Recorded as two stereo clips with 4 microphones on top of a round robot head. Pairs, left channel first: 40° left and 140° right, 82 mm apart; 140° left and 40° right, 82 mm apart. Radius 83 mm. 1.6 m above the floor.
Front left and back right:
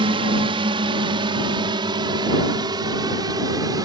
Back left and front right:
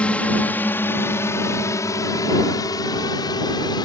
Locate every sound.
0.0 s a drone: 145° right; by 3.9 s 175° left